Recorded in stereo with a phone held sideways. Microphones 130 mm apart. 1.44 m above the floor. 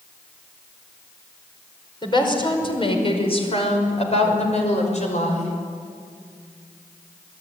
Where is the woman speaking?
35° left (ahead or behind), 5 m; by 5.5 s 60° left (ahead or behind), 6 m.